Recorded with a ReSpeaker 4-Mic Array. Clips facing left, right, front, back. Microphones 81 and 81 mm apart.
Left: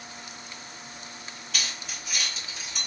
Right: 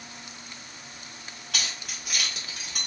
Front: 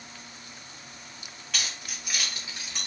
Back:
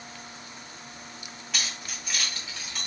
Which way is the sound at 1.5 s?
95° right.